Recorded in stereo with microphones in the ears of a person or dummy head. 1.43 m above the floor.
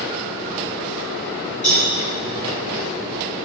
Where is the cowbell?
35° left (ahead or behind), 4 m.